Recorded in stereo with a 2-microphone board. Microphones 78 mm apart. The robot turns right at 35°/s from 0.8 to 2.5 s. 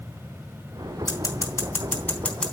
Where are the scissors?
50° left (ahead or behind), 3.5 m; by 2.5 s 5° left (ahead or behind), 3.5 m.